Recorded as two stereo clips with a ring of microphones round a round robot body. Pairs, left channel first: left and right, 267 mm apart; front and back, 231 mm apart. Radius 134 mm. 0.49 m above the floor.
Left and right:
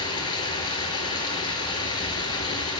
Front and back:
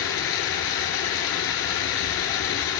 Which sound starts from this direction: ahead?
Running water, at 0.0 s.